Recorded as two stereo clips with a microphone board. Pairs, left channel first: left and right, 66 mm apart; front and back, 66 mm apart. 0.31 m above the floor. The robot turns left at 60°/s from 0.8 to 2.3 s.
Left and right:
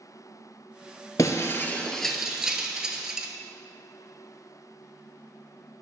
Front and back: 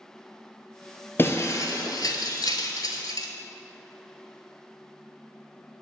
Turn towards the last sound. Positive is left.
turn(degrees=-10)